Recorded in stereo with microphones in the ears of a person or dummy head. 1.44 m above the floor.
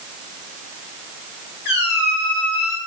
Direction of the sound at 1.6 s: 65° left (ahead or behind).